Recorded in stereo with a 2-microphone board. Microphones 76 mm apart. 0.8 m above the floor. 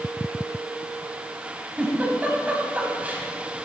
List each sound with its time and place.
1.8 s a giggle: 20° right (ahead or behind), 2 m